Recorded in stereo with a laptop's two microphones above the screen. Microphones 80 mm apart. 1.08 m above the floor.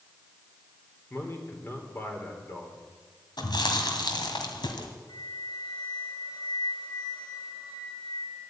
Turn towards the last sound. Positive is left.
turn(degrees=70)  # may be behind; listen again after turning